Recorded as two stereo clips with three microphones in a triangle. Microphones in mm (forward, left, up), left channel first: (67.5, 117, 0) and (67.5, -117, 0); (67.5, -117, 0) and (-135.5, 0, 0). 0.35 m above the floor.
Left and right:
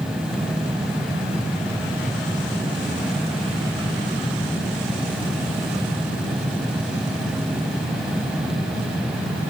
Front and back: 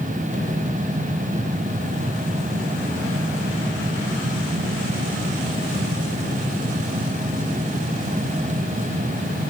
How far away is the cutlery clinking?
I don't hear cutlery clinking.